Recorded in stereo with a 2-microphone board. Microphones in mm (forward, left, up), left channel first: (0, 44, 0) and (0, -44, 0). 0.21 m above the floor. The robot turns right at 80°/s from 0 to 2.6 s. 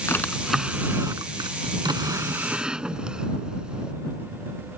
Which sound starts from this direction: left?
A drawer, at 0.1 s.